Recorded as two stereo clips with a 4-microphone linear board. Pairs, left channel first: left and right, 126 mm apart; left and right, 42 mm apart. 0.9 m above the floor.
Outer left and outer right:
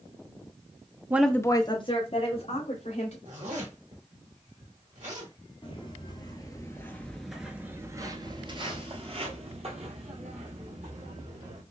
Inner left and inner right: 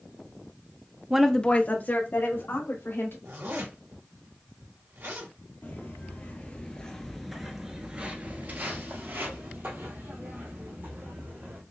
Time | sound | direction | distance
1.1 | a woman speaking | 15° right (ahead or behind) | 0.5 m
3.2 | a zipper | 80° right | 1.9 m
5.6 | footsteps | 45° left (ahead or behind) | 1.4 m